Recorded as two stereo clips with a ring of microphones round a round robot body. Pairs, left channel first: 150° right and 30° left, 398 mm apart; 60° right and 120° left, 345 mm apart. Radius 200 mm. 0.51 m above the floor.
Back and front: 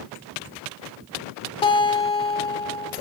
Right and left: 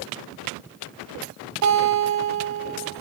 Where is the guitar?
135° left, 1.5 m.